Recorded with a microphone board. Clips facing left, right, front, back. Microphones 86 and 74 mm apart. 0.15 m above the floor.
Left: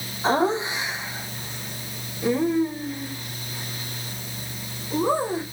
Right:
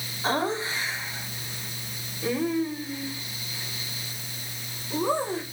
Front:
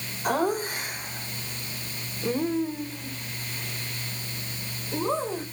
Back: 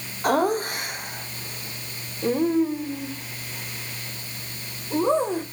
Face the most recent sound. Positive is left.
turn(degrees=170)